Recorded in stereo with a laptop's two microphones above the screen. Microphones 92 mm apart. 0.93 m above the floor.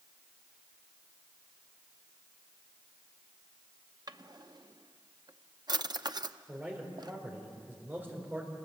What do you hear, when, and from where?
4.1 s a drawer: 50° right (ahead or behind), 0.7 m
6.5 s a man speaking: 20° right (ahead or behind), 4 m